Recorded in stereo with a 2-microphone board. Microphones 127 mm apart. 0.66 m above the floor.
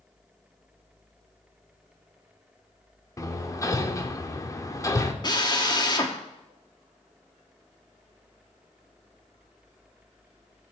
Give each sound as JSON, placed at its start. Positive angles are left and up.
{"t": 3.2, "sound": "hammering", "side_deg": 25, "distance_m": 0.8}
{"t": 5.2, "sound": "a drill", "side_deg": 35, "distance_m": 1.1}